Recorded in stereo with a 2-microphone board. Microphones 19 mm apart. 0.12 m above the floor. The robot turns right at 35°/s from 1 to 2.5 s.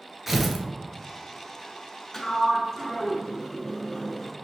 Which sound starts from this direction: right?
Tearing paper, at 0.3 s.